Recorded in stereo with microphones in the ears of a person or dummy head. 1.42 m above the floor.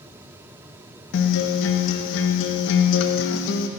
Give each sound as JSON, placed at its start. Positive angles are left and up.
{"t": 1.1, "sound": "a guitar", "side_deg": 60, "distance_m": 0.9}